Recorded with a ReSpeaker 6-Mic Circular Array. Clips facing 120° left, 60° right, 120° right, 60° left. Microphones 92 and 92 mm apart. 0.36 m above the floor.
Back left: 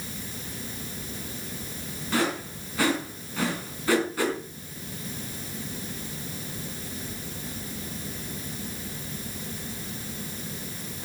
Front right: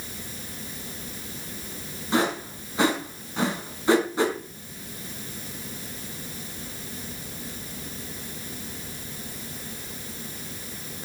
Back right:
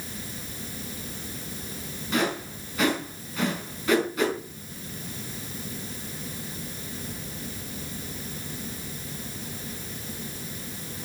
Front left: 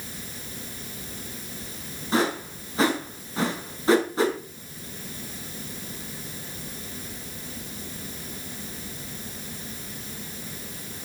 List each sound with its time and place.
2.1 s a whoosh: 5° left, 4 m